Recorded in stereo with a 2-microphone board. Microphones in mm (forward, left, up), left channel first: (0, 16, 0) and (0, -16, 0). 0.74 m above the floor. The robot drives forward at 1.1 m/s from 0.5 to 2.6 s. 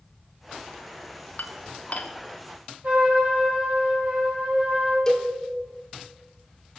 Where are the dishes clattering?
70° left (ahead or behind), 0.8 m; by 2.1 s 40° left (ahead or behind), 1.1 m.